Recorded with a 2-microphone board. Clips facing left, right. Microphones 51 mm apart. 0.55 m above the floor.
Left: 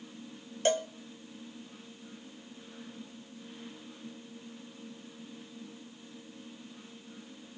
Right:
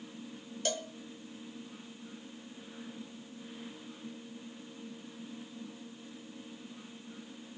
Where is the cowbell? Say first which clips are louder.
Left 8 dB; 35° left (ahead or behind), 0.7 m.